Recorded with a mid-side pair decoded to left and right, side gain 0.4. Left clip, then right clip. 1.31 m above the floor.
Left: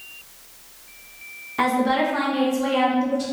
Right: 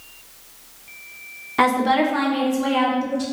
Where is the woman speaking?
40° right, 0.9 m; by 3.2 s 5° right, 1.6 m.